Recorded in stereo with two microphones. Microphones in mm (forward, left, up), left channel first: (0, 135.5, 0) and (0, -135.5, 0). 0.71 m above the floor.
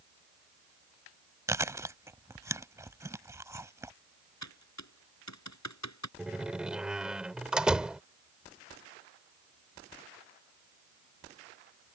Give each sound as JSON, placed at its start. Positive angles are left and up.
{"t": 1.5, "sound": "chewing", "side_deg": -10}
{"t": 4.4, "sound": "typing on a keyboard", "side_deg": 85}
{"t": 6.2, "sound": "a door slam", "side_deg": -5}